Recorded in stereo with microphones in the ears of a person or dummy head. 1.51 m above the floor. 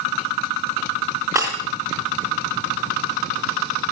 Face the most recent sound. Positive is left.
turn(degrees=-20)  # may be behind; listen again after turning